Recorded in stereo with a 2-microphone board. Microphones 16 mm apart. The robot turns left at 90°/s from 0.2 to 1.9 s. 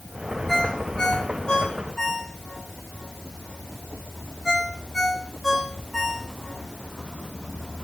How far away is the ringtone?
About 6 m.